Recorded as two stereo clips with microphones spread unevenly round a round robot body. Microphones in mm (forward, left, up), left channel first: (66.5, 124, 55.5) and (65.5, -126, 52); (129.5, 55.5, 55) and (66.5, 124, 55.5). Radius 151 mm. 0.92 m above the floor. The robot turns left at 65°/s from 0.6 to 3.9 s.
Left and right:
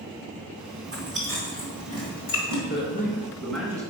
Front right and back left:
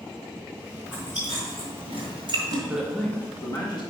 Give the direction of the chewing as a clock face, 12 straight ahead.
5 o'clock.